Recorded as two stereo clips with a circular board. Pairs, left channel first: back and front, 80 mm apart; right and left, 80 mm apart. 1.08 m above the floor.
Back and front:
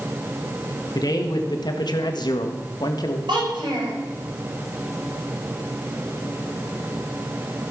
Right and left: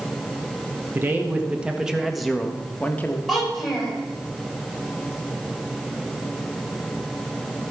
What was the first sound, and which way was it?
A man speaking, 150° left.